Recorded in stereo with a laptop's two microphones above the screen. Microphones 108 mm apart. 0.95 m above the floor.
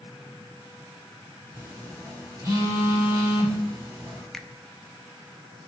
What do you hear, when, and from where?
1.5 s a phone buzzing: 25° right (ahead or behind), 5 m
4.3 s a finger snap: 5° left (ahead or behind), 0.6 m